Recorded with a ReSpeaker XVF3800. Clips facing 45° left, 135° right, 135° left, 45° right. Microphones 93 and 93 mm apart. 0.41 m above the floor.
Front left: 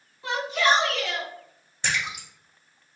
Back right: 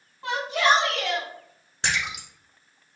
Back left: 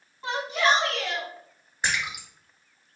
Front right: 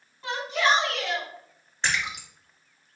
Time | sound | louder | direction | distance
0.2 | a shout | back right 1 dB, back left 1 dB | 155° right | 1.9 m
1.8 | a splash | back right 1 dB, even | 145° right | 1.3 m